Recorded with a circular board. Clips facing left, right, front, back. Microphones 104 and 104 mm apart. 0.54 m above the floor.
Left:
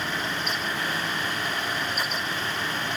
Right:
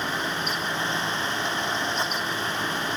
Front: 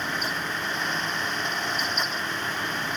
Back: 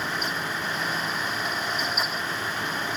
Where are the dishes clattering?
No dishes clattering in this recording.